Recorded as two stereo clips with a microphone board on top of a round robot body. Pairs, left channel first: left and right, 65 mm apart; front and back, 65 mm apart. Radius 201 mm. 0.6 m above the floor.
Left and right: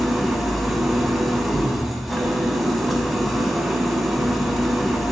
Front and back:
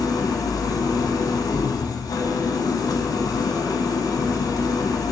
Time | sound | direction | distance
0.0 | an engine running | 5° right | 0.7 m